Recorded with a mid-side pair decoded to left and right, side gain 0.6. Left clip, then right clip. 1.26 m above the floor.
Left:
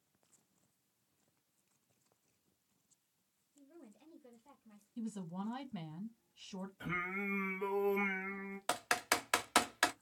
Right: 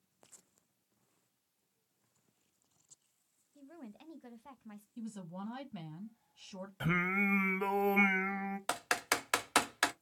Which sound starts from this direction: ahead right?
Singing, at 6.8 s.